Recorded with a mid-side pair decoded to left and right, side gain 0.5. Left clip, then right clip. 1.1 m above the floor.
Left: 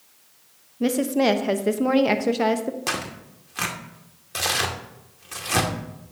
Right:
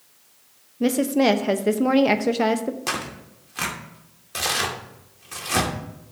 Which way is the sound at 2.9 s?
5° left.